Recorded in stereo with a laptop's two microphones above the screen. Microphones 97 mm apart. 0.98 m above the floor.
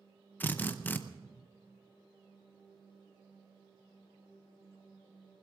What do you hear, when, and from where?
0.4 s a drill: 20° left (ahead or behind), 0.6 m